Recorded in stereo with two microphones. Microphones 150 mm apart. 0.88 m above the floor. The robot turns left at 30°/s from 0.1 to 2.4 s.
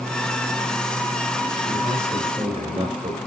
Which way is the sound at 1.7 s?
10° right (ahead or behind).